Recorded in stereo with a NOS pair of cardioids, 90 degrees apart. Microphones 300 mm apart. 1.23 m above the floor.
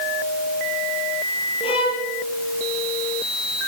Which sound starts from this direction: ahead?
A violin, at 1.6 s.